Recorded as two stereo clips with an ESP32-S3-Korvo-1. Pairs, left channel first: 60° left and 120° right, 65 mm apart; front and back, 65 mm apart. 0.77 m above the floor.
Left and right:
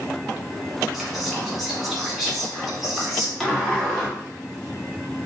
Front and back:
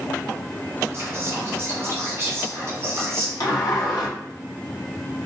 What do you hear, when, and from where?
0.9 s whispering: 155° left, 1.0 m
3.4 s a sliding door: 25° right, 0.7 m